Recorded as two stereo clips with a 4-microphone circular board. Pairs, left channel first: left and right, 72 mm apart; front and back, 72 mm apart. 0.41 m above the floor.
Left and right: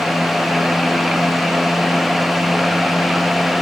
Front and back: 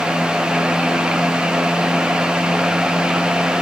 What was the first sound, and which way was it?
Only background noise.